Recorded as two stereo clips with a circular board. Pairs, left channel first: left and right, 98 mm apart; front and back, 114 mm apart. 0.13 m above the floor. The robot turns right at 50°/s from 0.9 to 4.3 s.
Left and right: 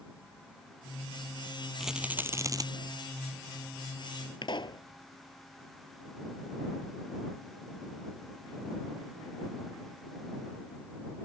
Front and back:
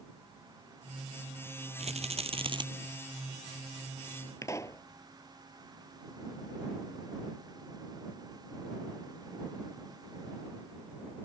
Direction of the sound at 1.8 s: Straight behind.